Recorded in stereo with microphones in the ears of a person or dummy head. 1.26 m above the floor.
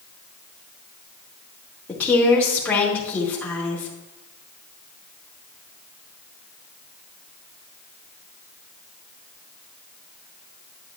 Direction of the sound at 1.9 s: 5° left (ahead or behind).